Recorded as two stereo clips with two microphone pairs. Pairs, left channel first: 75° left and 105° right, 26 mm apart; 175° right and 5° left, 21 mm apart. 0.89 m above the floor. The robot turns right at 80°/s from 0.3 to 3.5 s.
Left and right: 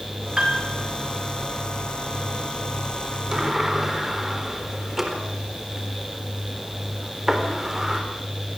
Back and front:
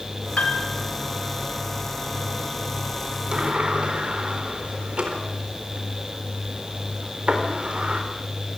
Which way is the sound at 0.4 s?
Straight behind.